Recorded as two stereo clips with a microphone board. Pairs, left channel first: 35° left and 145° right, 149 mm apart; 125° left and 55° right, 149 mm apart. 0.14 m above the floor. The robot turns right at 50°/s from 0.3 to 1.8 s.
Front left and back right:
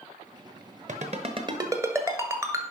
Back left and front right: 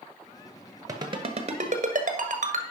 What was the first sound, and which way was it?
A ringtone, 120° right.